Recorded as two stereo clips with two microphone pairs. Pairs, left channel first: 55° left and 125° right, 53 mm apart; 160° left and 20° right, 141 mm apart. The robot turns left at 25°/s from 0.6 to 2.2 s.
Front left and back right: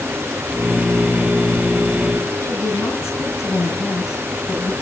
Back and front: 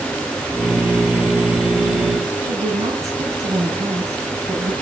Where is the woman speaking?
50° left, 6 m.